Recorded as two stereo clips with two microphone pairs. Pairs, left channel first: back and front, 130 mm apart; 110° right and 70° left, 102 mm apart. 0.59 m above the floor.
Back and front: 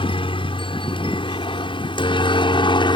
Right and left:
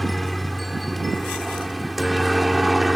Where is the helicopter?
160° left; by 3.0 s 155° left.